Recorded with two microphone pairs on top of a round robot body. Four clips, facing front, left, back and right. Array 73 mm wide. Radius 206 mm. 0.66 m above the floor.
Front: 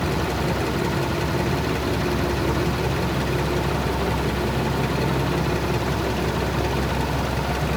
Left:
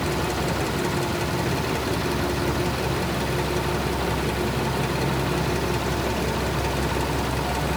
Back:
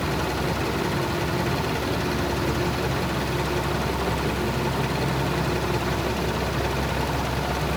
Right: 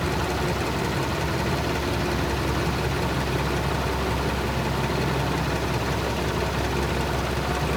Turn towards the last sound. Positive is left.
No sound to turn to.